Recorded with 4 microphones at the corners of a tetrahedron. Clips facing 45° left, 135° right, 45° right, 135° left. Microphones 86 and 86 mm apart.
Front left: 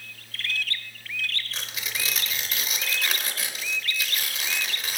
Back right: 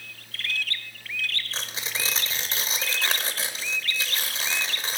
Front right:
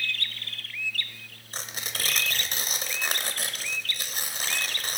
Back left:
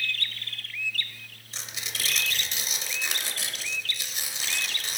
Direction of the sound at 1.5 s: 80° right.